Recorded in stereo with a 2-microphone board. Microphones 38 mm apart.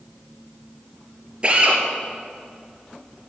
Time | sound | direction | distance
1.4 | a drill | 30° right (ahead or behind) | 3.5 m